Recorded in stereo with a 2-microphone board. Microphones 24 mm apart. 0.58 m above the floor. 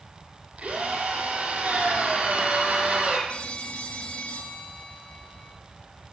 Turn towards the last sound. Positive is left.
turn(degrees=65)  # may be behind; listen again after turning